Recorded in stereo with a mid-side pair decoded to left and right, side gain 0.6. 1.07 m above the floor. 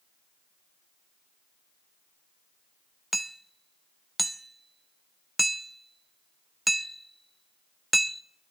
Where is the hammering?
Straight ahead, 0.7 m.